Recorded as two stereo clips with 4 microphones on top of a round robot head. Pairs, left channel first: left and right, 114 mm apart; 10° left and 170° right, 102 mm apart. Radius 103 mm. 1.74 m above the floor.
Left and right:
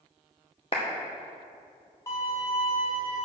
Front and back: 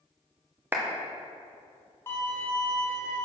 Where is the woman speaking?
No woman speaking in this recording.